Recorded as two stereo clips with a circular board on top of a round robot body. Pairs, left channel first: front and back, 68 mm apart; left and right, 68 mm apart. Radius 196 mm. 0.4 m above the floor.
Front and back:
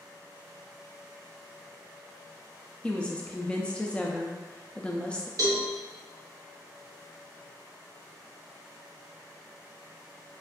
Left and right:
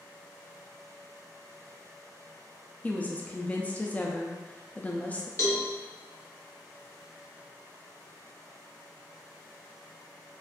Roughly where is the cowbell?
Behind left.